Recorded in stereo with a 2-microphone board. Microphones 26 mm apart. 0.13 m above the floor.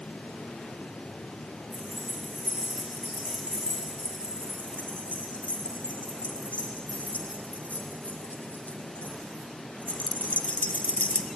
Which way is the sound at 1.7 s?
70° left (ahead or behind).